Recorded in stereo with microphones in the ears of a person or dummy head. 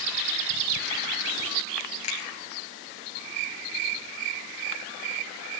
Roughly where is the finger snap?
Left.